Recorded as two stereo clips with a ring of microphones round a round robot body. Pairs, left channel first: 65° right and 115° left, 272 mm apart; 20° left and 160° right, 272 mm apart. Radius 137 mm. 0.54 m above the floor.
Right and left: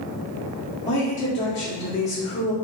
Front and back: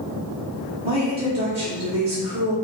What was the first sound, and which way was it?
A woman speaking, 110° right.